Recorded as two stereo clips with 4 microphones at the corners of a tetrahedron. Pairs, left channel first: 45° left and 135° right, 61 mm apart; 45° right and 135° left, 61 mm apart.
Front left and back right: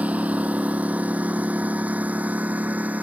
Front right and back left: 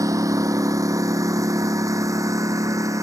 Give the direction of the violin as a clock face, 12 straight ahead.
No violin in this recording.